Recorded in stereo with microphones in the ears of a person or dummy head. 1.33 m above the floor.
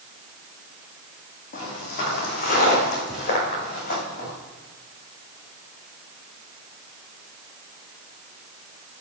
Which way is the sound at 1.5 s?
50° left (ahead or behind).